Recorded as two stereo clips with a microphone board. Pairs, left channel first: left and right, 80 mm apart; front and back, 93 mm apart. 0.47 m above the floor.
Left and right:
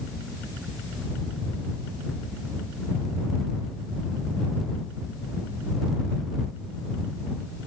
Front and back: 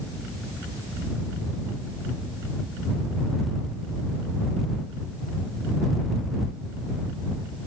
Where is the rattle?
No rattle in this recording.